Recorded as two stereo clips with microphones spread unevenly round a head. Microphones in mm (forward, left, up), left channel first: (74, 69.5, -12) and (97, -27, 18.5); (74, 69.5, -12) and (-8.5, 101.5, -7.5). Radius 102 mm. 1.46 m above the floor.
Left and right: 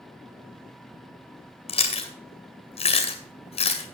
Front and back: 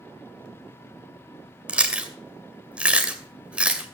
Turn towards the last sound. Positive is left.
turn(degrees=85)